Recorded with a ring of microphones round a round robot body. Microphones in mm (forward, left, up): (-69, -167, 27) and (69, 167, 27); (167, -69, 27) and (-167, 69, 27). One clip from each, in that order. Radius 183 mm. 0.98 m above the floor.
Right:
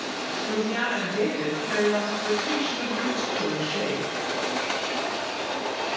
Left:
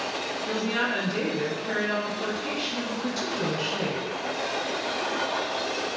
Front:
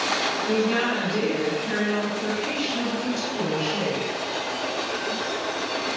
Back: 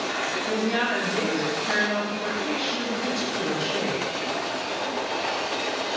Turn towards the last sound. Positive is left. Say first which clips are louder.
# even, even
turn(degrees=100)